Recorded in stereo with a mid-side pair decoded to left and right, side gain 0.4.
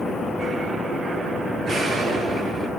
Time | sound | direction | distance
1.6 | an explosion | 65° right | 7 m